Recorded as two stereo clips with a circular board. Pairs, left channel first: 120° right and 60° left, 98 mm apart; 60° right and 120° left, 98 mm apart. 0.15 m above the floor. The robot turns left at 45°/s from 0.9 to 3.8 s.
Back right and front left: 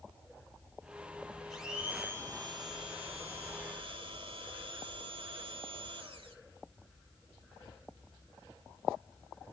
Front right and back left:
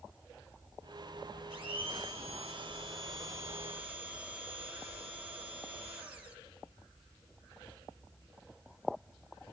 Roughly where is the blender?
Behind left.